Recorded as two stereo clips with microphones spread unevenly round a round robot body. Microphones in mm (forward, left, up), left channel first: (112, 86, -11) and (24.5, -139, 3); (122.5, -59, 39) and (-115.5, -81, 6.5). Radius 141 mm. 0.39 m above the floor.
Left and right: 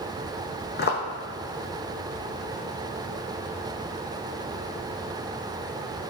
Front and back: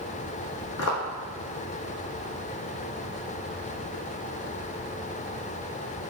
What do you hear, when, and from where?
0.8 s footsteps: 25° left, 1.0 m